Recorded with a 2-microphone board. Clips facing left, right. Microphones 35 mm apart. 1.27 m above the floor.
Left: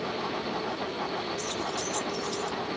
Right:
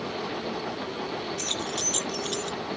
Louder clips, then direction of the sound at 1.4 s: Right 1 dB; 75° right (ahead or behind).